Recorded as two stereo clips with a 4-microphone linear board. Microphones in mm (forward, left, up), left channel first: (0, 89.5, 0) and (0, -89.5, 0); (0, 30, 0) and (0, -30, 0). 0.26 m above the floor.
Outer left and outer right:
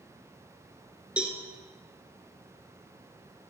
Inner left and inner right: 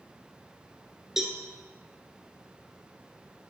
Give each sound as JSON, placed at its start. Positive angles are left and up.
{"t": 1.2, "sound": "a cowbell", "side_deg": -5, "distance_m": 1.3}